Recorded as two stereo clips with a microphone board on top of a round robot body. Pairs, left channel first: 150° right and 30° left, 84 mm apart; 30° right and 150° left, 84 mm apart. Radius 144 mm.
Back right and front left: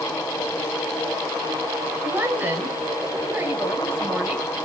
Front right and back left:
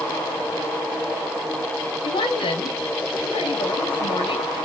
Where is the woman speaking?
35° right, 4 m.